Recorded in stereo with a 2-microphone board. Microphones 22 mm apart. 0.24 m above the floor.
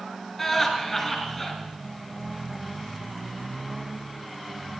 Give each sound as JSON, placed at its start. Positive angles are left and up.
{"t": 0.4, "sound": "laughter", "side_deg": 10, "distance_m": 4.0}